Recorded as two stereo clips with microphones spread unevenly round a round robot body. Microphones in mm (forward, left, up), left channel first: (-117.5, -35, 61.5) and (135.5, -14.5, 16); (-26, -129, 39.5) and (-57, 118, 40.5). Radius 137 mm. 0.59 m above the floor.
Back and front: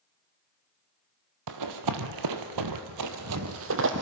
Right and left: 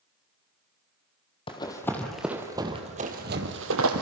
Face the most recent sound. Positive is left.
turn(degrees=60)